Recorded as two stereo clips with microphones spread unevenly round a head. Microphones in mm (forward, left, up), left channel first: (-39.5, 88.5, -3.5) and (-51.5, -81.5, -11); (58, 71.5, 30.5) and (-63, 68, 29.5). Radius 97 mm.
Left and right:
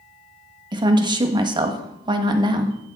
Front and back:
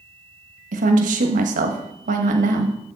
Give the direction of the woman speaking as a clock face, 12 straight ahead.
5 o'clock.